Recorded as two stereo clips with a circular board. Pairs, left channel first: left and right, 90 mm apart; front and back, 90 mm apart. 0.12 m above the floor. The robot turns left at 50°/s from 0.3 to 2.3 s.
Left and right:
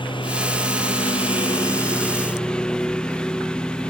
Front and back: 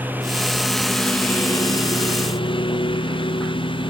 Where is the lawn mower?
110° left; by 3.9 s 10° left.